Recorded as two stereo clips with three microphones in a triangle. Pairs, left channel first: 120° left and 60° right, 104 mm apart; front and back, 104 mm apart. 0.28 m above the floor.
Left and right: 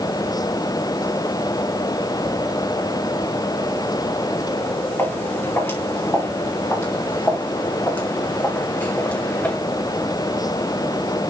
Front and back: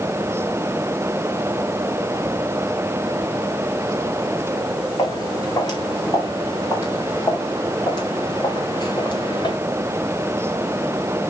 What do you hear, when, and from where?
5.0 s footsteps: 50° left, 7.5 m; by 9.6 s 45° left, 2.5 m